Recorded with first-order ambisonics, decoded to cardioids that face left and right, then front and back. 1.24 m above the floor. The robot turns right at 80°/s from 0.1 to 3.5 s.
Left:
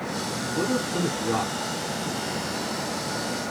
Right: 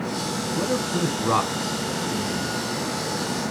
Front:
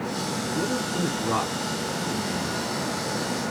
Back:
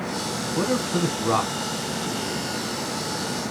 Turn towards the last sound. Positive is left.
turn(degrees=65)